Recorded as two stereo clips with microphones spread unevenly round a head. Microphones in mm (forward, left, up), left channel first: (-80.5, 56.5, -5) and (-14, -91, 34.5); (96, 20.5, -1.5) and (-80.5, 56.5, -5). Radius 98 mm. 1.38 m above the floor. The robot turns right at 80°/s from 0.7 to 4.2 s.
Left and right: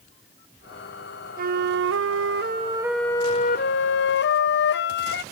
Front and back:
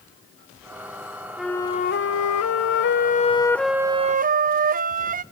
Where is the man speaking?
No man speaking in this recording.